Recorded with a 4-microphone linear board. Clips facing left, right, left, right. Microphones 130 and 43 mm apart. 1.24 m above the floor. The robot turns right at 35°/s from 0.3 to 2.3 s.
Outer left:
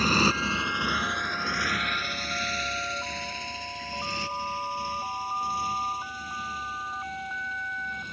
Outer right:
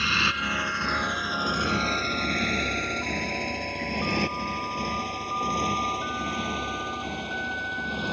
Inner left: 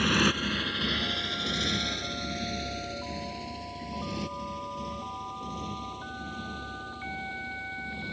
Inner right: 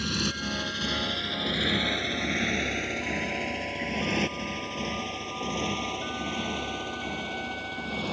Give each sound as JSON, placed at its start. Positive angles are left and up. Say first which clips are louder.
{"t": 0.0, "sound": "a motorcycle", "louder": "outer left 5 dB, inner left 5 dB", "side_deg": 40}